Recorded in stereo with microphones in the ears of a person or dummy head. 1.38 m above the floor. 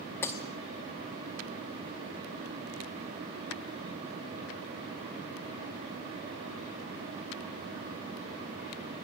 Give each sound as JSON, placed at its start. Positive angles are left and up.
{"t": 0.2, "sound": "breaking glass", "side_deg": 10, "distance_m": 0.9}